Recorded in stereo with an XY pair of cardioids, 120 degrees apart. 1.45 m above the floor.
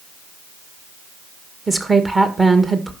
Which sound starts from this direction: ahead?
A woman speaking, at 1.7 s.